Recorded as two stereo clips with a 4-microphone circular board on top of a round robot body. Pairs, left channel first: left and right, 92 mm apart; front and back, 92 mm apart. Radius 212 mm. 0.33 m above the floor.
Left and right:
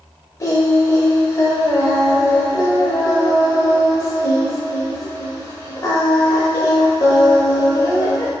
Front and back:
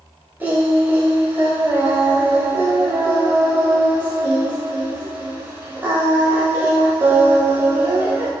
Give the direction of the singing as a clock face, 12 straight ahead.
8 o'clock.